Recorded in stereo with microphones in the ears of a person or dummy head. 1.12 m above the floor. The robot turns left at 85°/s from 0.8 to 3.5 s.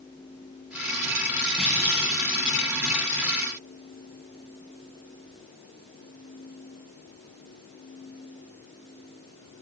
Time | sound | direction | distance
1.6 | a clunk | straight behind | 1.5 m